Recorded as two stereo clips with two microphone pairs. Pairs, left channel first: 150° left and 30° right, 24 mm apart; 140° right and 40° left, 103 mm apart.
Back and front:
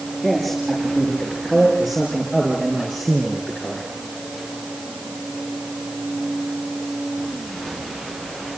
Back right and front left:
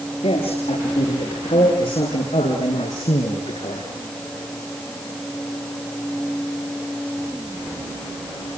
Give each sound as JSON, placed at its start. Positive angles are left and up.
{"t": 0.2, "sound": "a man speaking", "azimuth_deg": -130, "distance_m": 8.0}